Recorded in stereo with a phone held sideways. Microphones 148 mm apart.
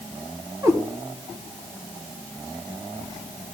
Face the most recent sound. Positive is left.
turn(degrees=-25)  # may be behind; listen again after turning